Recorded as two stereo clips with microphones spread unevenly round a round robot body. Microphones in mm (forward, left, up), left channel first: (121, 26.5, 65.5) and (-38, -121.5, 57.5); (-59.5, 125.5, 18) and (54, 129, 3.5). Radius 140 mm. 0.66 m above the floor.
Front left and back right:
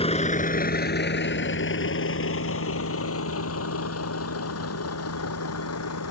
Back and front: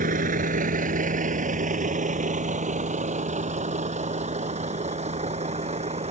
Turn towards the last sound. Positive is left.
turn(degrees=30)